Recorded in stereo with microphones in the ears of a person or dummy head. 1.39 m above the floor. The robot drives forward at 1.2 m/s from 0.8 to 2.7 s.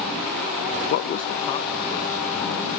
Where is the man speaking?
60° left (ahead or behind); by 2.7 s 15° left (ahead or behind).